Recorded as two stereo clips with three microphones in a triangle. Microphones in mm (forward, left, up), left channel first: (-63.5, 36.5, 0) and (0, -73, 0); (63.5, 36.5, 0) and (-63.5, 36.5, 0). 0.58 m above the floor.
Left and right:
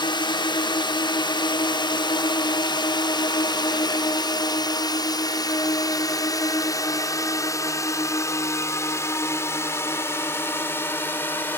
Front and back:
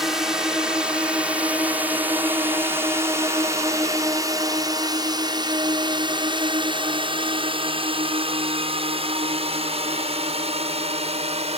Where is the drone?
95° left; by 11.6 s 170° right.